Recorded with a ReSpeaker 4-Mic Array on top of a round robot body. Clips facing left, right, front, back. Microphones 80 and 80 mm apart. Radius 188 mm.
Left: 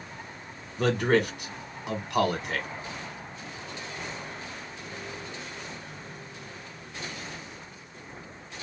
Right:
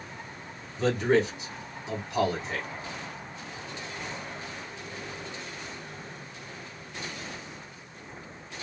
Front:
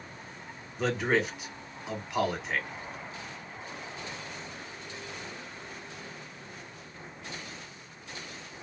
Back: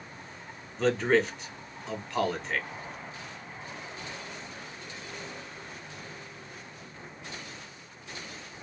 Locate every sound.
0.8 s a man speaking: 80° left, 1.4 m